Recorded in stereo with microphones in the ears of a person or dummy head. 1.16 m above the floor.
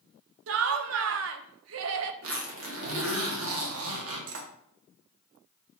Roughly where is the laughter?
Right.